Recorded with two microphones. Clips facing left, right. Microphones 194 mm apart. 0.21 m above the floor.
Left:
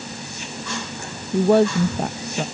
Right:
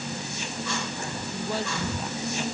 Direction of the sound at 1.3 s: 65° left (ahead or behind).